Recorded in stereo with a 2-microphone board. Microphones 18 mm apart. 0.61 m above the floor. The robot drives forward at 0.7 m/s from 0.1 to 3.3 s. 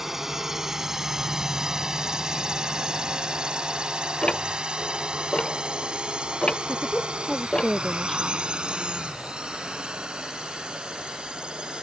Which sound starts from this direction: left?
Ticking, at 4.2 s.